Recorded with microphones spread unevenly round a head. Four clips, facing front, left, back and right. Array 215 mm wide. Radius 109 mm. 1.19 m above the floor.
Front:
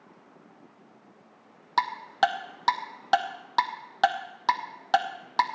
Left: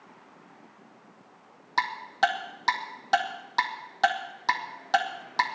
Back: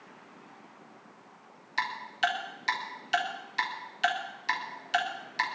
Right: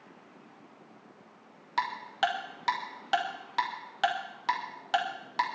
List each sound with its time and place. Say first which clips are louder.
1.8 s ticking: left 4 dB, front 7 dB; 20° left, 1.0 m